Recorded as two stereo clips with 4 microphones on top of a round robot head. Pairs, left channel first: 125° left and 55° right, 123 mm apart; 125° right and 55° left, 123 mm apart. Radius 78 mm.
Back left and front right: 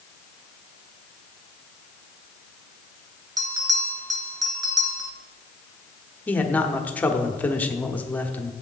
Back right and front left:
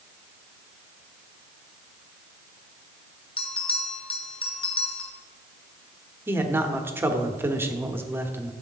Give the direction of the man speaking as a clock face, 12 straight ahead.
9 o'clock.